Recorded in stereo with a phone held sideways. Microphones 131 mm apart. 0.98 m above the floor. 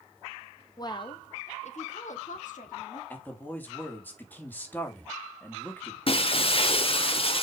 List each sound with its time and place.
0.8 s a woman speaking: 30° left (ahead or behind), 1.1 m; by 3.0 s 80° left, 2.5 m
3.1 s a man speaking: 15° left (ahead or behind), 2.5 m
6.1 s breaking glass: 45° left (ahead or behind), 0.9 m